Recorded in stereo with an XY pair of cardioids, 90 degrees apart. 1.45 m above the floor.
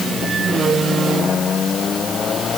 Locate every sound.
Only background noise.